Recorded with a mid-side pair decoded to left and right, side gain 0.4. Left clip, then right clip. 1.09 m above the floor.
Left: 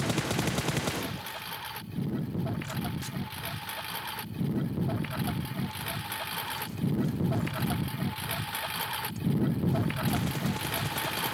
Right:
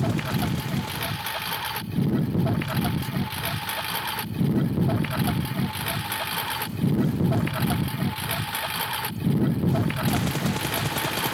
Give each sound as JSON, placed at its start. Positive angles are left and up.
{"t": 0.0, "sound": "a lawn mower", "azimuth_deg": -65}